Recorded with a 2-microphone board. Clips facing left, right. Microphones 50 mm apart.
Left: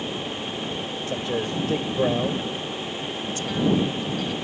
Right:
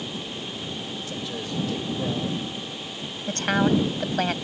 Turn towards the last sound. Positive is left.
turn(degrees=-65)  # may be behind; listen again after turning